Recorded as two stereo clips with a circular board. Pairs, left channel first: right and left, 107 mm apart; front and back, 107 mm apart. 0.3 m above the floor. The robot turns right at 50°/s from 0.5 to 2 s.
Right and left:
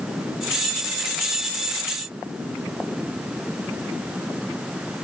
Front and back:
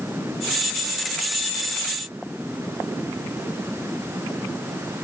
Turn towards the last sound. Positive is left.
No sound to turn to.